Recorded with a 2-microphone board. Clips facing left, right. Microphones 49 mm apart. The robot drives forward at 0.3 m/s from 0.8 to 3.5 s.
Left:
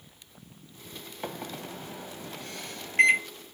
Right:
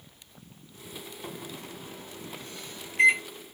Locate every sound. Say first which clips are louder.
1.2 s a microwave: left 6 dB; 65° left (ahead or behind), 1.6 m; by 3.2 s 60° left (ahead or behind), 1.7 m